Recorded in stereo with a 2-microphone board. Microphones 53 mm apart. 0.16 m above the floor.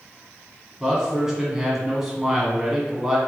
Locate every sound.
0.8 s a man speaking: 10° right (ahead or behind), 1.1 m